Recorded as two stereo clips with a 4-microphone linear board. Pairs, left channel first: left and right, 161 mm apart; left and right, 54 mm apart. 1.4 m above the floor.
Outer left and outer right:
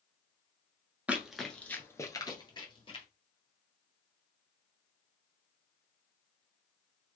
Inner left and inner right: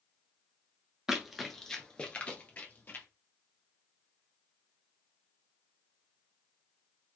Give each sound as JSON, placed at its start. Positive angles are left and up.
{"t": 1.1, "sound": "running footsteps", "side_deg": -10, "distance_m": 1.4}